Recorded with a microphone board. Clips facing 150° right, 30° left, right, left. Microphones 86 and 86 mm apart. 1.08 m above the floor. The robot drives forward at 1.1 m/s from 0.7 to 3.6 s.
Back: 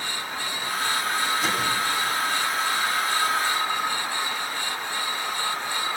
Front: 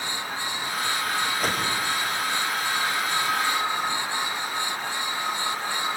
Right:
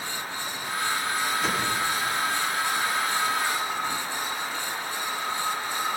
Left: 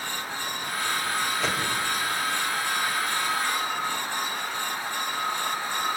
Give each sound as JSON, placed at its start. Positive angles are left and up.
{"t": 1.4, "sound": "a whoosh", "azimuth_deg": 70, "distance_m": 4.5}